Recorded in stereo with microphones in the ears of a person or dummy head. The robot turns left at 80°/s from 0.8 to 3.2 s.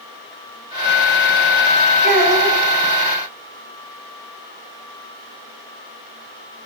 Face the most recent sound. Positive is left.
turn(degrees=145)